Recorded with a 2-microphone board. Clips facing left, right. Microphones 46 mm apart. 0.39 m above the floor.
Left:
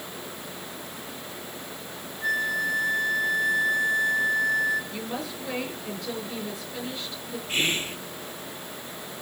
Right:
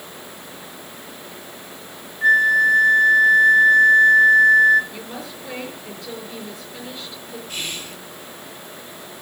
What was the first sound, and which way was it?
A flute, 45° right (ahead or behind).